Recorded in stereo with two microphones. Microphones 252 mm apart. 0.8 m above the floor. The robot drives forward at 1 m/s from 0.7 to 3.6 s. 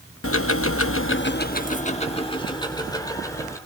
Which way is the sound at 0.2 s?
60° left (ahead or behind).